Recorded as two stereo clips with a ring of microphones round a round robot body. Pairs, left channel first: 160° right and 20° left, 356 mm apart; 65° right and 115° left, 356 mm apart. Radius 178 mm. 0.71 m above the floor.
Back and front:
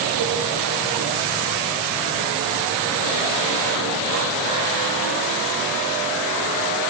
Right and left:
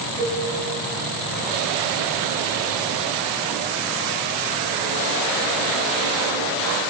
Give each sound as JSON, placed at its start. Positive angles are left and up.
{"t": 0.2, "sound": "a cowbell", "azimuth_deg": 165, "distance_m": 7.0}